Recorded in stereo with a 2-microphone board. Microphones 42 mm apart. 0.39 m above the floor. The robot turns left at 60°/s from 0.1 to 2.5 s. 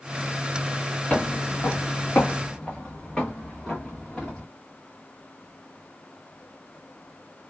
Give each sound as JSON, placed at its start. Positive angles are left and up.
{"t": 1.1, "sound": "footsteps", "side_deg": 30, "distance_m": 0.6}